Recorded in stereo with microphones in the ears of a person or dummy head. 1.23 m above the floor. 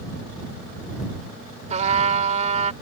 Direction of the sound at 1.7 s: 35° right (ahead or behind).